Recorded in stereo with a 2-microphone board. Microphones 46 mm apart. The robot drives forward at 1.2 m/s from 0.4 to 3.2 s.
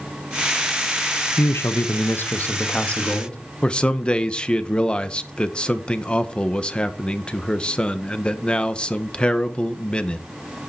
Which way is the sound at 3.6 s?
20° left (ahead or behind).